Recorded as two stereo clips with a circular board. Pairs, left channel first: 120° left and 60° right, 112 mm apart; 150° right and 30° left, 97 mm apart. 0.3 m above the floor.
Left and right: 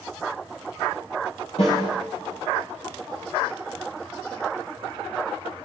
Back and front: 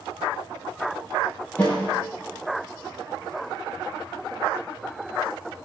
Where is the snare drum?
135° left, 8 m.